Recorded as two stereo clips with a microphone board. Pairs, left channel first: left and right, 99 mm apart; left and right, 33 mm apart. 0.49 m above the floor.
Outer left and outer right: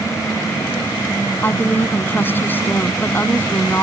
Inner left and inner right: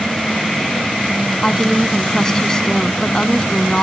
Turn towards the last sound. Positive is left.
turn(degrees=20)  # may be behind; listen again after turning